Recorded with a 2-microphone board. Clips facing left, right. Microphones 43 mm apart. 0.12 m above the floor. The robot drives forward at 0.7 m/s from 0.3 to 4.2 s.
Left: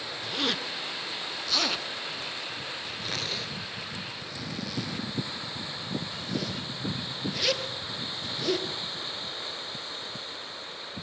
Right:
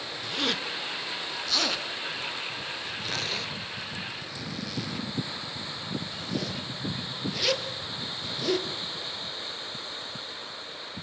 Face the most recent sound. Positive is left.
turn(degrees=0)  # may be behind; listen again after turning